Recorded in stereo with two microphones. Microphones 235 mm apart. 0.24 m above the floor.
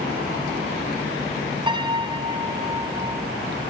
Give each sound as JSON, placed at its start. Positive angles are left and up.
{"t": 1.7, "sound": "a piano", "side_deg": -20, "distance_m": 1.7}